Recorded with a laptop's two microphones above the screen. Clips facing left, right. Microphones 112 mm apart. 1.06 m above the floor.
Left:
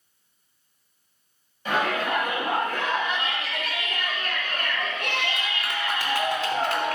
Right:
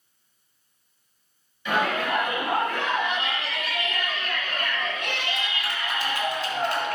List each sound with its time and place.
1.6 s a shout: 40° left (ahead or behind), 5.5 m; by 7.0 s 90° left, 2.5 m